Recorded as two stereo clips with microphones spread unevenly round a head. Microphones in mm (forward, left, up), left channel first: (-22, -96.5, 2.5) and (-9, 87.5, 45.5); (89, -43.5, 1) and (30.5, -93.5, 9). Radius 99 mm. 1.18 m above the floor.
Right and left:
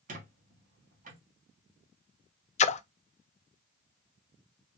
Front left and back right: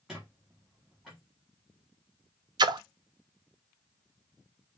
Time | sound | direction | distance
0.1 | a squeak | 135° left | 1.6 m
2.6 | a splash | 125° right | 0.5 m